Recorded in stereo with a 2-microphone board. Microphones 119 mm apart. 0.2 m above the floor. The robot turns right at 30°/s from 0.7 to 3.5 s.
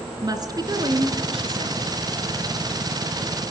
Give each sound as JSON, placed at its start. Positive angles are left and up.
{"t": 0.2, "sound": "a woman speaking", "azimuth_deg": -140, "distance_m": 3.0}